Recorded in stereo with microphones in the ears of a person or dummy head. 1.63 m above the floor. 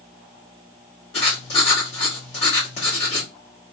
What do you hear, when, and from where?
1.1 s writing: 35° left (ahead or behind), 1.1 m